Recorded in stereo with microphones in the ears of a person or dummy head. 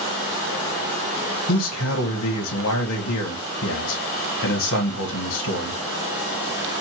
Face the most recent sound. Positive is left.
turn(degrees=80)